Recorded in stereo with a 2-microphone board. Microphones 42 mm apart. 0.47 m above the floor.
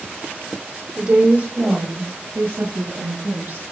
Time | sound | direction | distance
1.0 | a woman speaking | 20° right (ahead or behind) | 1.0 m